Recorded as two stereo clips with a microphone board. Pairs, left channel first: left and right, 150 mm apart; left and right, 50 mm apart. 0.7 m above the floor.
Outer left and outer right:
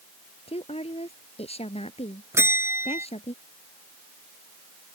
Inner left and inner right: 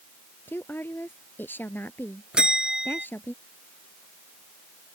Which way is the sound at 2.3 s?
15° right (ahead or behind).